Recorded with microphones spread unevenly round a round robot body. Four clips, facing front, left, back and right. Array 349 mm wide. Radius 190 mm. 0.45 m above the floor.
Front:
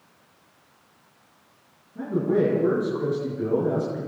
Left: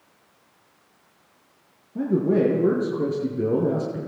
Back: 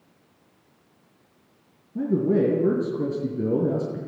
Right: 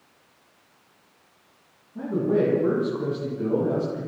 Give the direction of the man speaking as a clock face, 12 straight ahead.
7 o'clock.